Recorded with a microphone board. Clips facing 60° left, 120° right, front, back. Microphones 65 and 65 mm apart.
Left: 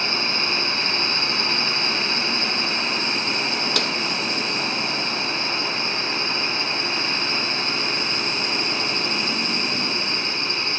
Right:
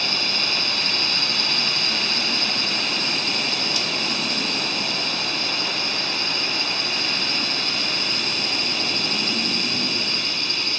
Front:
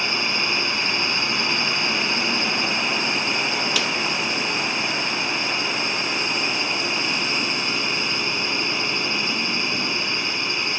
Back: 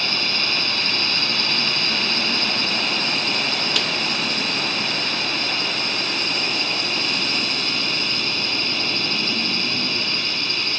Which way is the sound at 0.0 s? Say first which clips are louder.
Left 2 dB, front 1 dB; 50° left.